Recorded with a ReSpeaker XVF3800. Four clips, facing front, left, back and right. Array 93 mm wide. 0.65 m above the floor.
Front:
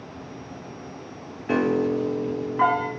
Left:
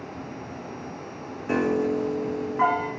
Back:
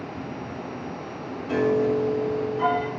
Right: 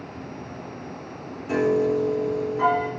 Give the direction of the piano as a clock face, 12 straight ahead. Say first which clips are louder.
Right 3 dB, even; 11 o'clock.